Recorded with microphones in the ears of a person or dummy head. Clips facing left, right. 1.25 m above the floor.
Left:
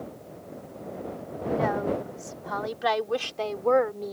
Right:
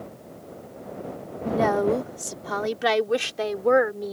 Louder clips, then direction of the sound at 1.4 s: Right 5 dB; 65° right (ahead or behind).